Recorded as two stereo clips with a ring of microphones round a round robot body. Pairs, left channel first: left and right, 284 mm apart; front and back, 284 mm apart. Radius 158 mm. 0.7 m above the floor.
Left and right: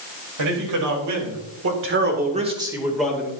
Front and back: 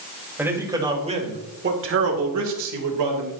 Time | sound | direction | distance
0.4 | a man speaking | 95° right | 3.5 m